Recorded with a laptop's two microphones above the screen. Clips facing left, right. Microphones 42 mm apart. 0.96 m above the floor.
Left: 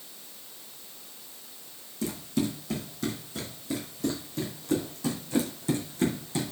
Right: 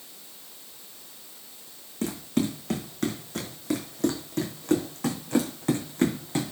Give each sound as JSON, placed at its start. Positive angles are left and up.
{"t": 2.0, "sound": "running footsteps", "side_deg": -50, "distance_m": 2.0}